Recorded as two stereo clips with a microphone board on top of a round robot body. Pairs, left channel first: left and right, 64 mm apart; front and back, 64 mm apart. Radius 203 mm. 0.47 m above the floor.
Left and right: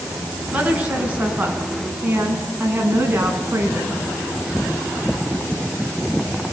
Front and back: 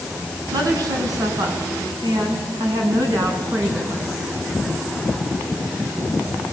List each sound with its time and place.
0.5 s a woman speaking: 165° right, 6 m; by 4.1 s 145° right, 6.5 m